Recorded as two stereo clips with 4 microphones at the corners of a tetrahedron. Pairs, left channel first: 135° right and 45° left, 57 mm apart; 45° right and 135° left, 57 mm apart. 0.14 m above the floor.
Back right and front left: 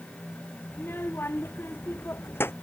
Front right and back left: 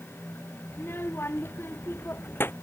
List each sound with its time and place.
0.7 s a child speaking: 90° right